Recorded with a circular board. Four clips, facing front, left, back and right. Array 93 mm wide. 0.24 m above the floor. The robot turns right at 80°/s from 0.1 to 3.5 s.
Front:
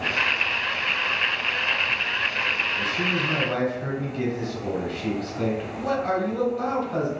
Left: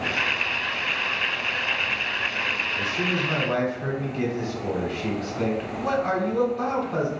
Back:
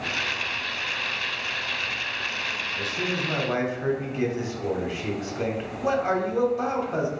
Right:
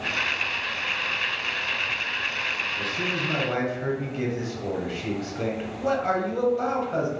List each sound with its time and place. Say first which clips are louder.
2.8 s a man speaking: left 4 dB, front 1 dB; 145° left, 0.9 m; by 7.1 s 155° right, 0.9 m